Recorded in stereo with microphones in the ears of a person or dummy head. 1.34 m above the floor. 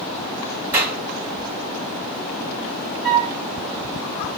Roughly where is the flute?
Centre.